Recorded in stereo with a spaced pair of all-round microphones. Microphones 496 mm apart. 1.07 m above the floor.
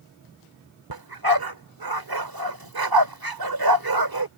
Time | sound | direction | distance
0.9 | a dog barking | 45° right (ahead or behind) | ?